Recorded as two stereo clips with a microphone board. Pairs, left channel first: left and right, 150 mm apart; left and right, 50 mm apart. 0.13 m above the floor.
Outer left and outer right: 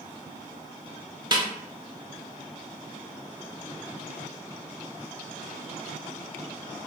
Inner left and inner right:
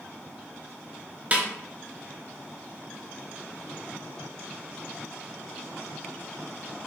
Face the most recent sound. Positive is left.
turn(degrees=-30)  # may be behind; listen again after turning